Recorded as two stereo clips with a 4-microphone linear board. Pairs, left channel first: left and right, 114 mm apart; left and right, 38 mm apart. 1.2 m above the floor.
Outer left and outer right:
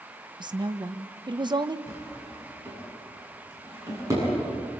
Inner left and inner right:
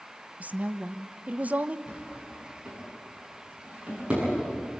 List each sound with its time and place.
0.4 s a woman speaking: 40° right (ahead or behind), 0.9 m
1.9 s a drawer: 25° right (ahead or behind), 10 m